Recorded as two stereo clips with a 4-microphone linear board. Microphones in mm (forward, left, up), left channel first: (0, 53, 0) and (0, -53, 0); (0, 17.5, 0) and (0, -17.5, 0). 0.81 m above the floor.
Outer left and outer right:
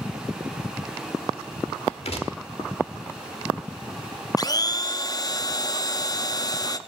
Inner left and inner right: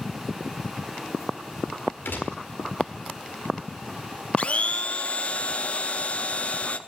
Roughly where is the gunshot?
Left.